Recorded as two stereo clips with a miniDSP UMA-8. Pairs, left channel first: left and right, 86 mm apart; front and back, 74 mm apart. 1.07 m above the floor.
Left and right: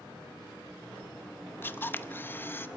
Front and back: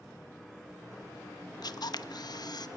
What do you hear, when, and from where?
1.6 s a camera shutter: 25° left, 0.8 m